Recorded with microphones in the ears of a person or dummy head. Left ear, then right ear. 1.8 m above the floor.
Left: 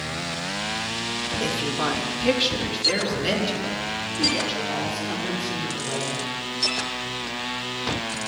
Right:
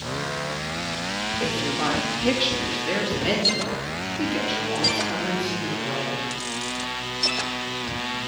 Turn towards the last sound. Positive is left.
turn(degrees=-10)  # may be behind; listen again after turning